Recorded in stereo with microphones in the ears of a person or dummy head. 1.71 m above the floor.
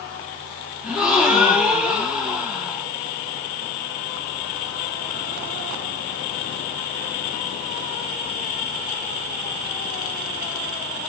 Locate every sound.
0.8 s a gasp: centre (ahead or behind), 2 m